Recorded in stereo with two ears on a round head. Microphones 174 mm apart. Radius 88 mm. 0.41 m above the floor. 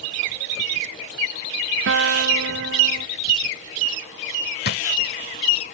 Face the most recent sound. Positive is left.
turn(degrees=55)  # may be behind; listen again after turning